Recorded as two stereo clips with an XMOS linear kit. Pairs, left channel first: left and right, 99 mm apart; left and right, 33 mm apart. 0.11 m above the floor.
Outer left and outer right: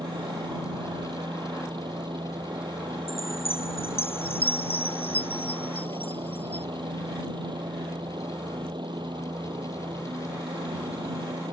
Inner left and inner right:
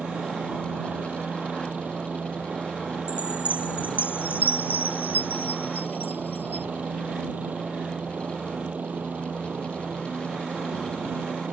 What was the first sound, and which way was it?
A helicopter, 50° right (ahead or behind).